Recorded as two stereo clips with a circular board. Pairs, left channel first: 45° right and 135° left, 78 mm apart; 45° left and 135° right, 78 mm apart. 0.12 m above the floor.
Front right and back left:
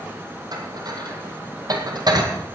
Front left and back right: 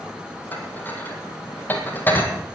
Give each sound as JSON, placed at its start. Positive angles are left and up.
{"t": 0.5, "sound": "dishes clattering", "azimuth_deg": 110, "distance_m": 2.5}